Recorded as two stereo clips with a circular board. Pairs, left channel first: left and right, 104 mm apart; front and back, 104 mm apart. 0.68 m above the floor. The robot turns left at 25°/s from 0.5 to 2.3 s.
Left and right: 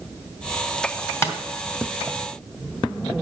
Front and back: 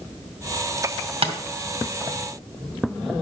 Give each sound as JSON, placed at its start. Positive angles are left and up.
{"t": 1.2, "sound": "tapping", "azimuth_deg": 155, "distance_m": 2.0}